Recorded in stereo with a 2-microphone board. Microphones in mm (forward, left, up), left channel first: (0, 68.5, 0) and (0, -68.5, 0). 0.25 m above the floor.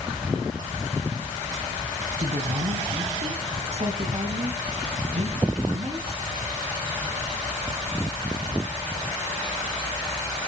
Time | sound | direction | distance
2.2 | a woman speaking | 50° right (ahead or behind) | 2.5 m